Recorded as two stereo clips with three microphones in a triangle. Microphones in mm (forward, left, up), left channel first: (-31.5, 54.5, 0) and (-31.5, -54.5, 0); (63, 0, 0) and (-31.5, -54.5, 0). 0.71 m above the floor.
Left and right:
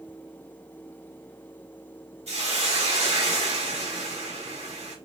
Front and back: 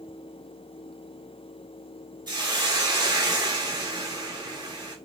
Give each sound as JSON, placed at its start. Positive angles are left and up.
{"t": 2.3, "sound": "a hiss", "azimuth_deg": -100, "distance_m": 1.5}